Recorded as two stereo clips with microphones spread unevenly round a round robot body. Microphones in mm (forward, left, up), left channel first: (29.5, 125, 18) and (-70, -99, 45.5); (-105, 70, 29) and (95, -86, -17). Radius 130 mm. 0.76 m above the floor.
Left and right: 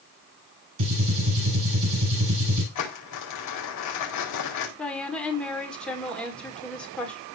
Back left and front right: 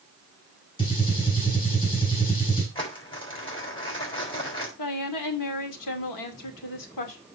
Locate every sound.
0.8 s a gunshot: 145° right, 7.5 m
2.8 s crumpling: 70° left, 4.5 m
4.8 s a woman speaking: 150° left, 2 m